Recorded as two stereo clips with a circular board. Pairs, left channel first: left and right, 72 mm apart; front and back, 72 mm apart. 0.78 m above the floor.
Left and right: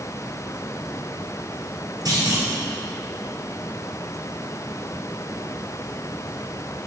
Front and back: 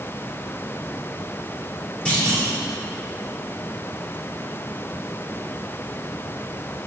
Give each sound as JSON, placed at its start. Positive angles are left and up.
{"t": 2.0, "sound": "a clunk", "azimuth_deg": -75, "distance_m": 1.9}